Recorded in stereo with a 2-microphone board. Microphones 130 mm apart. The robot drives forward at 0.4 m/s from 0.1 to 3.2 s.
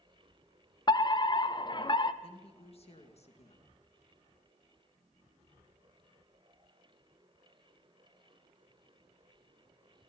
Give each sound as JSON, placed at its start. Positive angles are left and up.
{"t": 0.9, "sound": "a fire alarm", "side_deg": 30, "distance_m": 1.1}
{"t": 2.2, "sound": "a woman speaking", "side_deg": 45, "distance_m": 2.5}